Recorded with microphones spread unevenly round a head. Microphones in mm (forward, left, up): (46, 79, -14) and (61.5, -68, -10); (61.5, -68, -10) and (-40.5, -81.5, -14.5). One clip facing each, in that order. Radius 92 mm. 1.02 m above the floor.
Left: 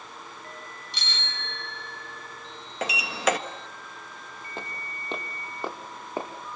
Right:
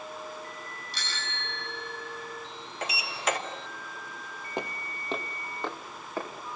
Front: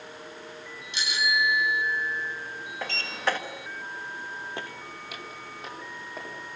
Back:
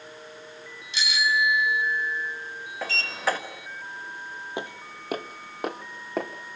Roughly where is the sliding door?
Left.